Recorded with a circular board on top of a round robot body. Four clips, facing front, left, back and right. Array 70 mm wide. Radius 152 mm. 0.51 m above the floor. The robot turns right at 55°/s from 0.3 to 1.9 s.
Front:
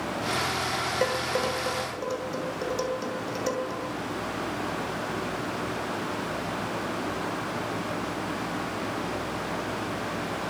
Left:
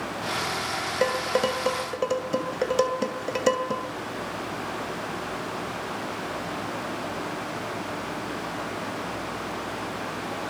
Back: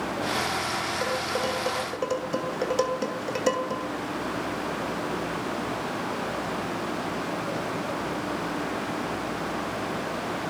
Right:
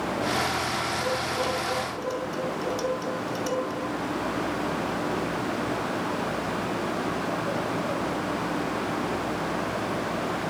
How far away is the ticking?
I don't hear ticking.